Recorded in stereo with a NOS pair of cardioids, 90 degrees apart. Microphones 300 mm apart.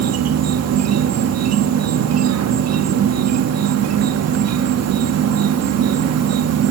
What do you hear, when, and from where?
0.0 s an insect: 60° right, 1.3 m